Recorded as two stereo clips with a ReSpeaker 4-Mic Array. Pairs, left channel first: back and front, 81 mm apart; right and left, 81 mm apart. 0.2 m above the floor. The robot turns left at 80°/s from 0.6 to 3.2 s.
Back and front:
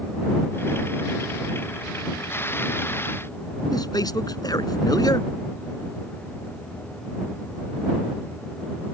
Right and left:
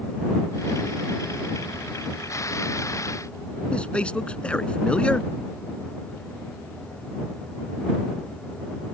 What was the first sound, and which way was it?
A man speaking, 165° right.